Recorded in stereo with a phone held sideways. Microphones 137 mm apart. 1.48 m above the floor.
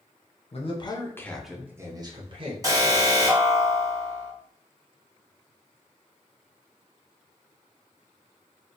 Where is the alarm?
25° right (ahead or behind), 0.9 m.